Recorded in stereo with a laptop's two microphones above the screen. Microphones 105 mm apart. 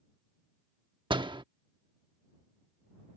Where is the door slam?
50° right (ahead or behind).